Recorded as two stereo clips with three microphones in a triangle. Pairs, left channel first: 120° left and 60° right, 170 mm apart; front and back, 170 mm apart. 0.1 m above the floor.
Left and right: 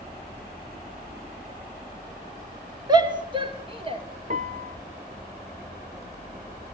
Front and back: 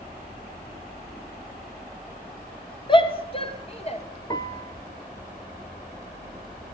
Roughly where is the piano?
Ahead right.